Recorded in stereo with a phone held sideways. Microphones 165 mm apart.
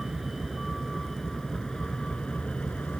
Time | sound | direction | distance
0.0 | a vehicle | centre (ahead or behind) | ?